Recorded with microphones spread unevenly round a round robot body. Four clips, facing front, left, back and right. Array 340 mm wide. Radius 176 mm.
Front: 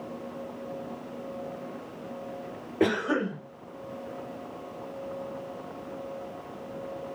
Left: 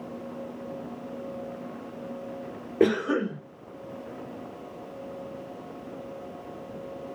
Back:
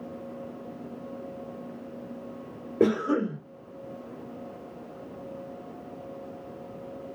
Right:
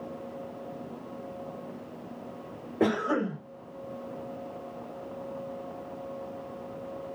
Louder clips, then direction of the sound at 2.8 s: Left 3 dB, back 2 dB; 135° left.